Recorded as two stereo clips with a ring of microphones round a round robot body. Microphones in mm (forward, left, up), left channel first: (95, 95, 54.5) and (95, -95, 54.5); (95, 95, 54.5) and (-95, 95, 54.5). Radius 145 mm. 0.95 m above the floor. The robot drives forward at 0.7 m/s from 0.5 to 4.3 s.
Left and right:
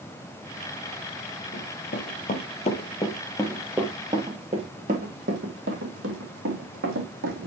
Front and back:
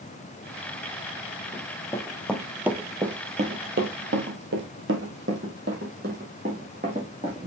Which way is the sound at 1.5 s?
60° left.